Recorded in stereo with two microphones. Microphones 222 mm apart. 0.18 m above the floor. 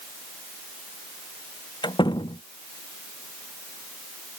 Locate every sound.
1.8 s a door slam: 20° left (ahead or behind)